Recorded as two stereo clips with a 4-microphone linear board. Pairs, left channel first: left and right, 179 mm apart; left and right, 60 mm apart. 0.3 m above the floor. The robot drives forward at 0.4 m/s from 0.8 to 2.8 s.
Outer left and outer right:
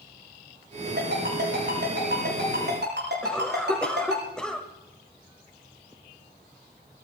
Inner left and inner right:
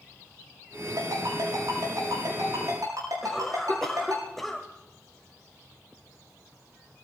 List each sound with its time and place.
1.0 s a ringtone: 65° right (ahead or behind), 10 m; by 4.2 s 70° right (ahead or behind), 9.5 m
3.2 s a cough: 5° left (ahead or behind), 1.4 m